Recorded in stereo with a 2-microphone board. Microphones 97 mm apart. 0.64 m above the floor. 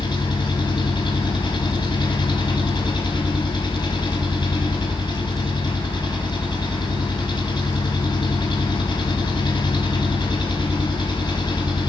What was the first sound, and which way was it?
An engine running, 55° left (ahead or behind).